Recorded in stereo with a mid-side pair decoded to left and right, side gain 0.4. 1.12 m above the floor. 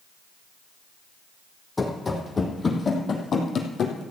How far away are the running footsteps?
About 3.5 m.